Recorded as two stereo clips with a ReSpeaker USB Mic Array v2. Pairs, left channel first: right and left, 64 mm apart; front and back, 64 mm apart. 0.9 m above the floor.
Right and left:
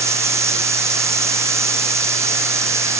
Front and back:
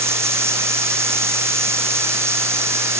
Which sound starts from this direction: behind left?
Running water, at 0.0 s.